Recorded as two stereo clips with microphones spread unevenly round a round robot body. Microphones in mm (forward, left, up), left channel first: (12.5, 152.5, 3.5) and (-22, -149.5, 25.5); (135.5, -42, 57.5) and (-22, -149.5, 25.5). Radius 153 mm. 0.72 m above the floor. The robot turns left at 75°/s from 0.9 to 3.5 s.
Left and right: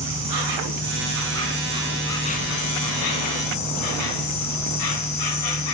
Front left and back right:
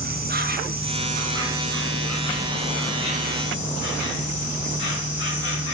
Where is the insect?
105° right, 1.3 m; by 5.7 s 60° left, 1.3 m.